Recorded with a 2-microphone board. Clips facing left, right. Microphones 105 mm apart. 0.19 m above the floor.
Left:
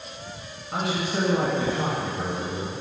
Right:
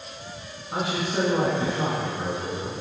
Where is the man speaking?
5° right (ahead or behind), 1.5 m.